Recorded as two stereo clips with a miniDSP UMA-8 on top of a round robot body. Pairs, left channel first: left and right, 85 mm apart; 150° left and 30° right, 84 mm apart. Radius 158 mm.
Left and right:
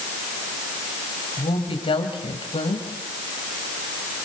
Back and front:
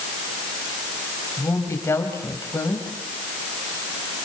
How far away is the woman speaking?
About 4.5 m.